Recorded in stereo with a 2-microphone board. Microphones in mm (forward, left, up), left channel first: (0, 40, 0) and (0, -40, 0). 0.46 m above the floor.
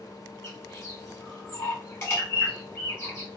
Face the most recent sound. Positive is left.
turn(degrees=30)  # may be behind; listen again after turning